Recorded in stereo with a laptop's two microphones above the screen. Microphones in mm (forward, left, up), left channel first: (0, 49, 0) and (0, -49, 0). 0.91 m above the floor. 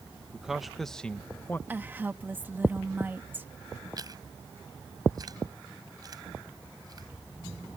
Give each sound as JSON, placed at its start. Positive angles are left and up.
{"t": 0.3, "sound": "a man speaking", "side_deg": -10}
{"t": 1.7, "sound": "a woman speaking", "side_deg": -20}
{"t": 4.0, "sound": "chewing", "side_deg": -40}